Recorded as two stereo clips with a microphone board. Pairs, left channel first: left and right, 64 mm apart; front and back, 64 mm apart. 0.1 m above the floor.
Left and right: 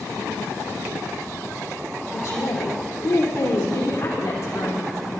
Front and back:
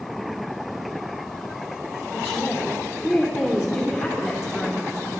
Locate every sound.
2.1 s a woman speaking: 85° left, 3 m